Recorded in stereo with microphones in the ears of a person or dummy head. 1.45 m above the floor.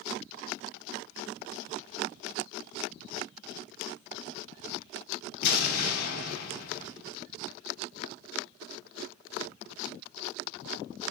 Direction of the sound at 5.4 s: 65° left (ahead or behind).